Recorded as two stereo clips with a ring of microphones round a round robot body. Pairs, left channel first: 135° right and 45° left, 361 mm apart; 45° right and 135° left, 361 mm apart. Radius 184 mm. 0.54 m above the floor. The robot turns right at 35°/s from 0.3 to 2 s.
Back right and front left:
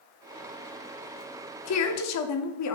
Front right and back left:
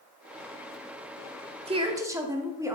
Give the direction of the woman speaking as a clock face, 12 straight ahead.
5 o'clock.